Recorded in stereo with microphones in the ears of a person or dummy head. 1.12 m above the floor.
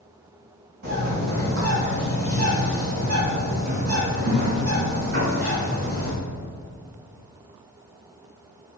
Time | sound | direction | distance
0.8 | a bird | 50° right (ahead or behind) | 1.8 m